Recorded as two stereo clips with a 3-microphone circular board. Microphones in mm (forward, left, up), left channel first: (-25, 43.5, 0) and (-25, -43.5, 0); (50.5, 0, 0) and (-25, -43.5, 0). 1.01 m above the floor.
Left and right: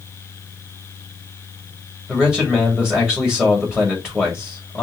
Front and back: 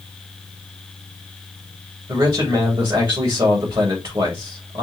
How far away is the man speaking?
About 2.5 m.